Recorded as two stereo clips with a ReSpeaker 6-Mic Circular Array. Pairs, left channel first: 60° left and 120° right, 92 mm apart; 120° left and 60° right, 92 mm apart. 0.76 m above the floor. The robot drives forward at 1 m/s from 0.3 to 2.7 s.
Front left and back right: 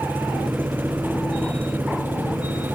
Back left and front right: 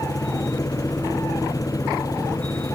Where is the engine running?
170° left.